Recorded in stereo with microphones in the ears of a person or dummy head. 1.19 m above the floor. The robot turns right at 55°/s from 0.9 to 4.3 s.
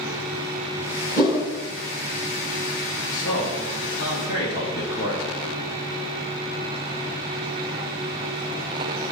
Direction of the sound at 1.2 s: 35° right (ahead or behind).